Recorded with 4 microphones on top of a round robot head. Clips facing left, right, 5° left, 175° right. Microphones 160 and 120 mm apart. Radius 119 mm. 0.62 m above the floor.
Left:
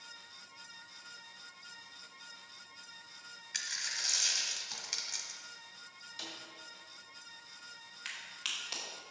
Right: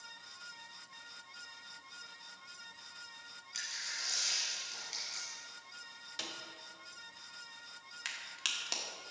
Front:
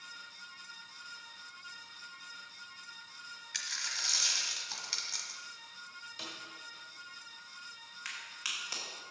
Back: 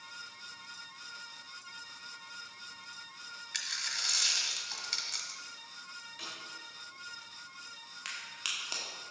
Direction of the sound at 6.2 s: 60° right.